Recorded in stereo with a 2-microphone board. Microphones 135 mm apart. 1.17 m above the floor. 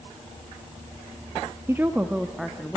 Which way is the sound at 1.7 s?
20° right (ahead or behind).